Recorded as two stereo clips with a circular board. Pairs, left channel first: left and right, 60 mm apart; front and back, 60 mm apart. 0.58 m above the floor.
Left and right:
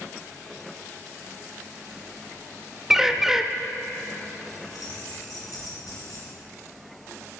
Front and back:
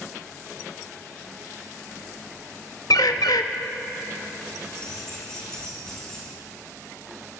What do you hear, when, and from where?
2.9 s a bird: 5° right, 0.6 m
4.6 s keys jangling: 80° left, 4 m